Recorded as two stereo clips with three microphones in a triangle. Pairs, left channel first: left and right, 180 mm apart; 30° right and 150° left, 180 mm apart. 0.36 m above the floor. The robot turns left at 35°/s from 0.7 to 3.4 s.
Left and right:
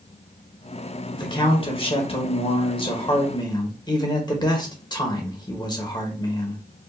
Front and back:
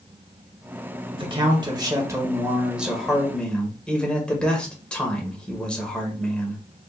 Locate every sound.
1.1 s a man speaking: 130° left, 1.2 m; by 6.6 s 50° left, 1.2 m